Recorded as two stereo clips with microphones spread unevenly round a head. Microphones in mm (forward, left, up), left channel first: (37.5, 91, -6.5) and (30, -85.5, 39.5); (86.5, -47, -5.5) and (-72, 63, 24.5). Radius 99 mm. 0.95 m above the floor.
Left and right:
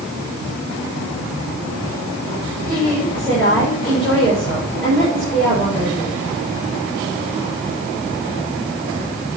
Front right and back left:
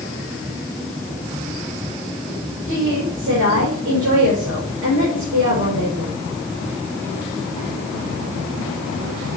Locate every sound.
2.7 s a woman speaking: 165° left, 4 m